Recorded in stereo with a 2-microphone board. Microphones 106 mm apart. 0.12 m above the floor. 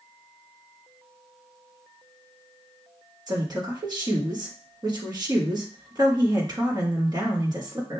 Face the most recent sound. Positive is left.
turn(degrees=-40)  # may be behind; listen again after turning